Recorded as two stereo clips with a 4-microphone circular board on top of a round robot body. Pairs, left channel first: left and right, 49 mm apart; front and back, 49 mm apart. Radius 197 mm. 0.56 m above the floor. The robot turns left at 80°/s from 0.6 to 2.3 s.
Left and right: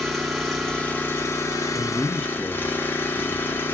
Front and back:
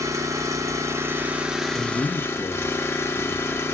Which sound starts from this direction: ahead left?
A man speaking, at 1.7 s.